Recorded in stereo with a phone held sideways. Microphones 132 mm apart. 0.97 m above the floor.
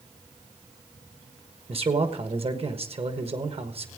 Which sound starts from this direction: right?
A man speaking, at 1.7 s.